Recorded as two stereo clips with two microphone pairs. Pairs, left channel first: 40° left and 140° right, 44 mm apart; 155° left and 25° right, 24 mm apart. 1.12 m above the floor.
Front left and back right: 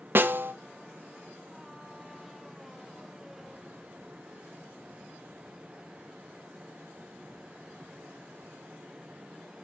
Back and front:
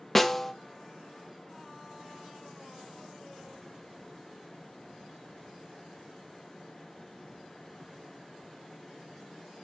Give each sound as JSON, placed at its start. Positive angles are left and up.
{"t": 0.1, "sound": "a snare drum", "azimuth_deg": -120, "distance_m": 0.7}